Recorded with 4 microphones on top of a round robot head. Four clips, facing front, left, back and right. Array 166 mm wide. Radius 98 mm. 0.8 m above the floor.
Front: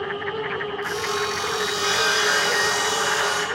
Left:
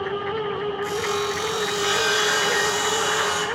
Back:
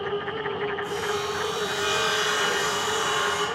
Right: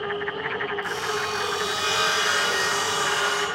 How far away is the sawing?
About 0.5 m.